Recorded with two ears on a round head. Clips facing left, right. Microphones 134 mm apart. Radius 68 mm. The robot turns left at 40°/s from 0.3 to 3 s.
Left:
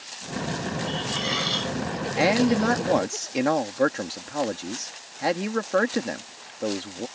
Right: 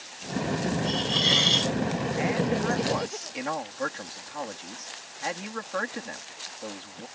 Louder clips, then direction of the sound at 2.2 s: Left 8 dB; 90° left.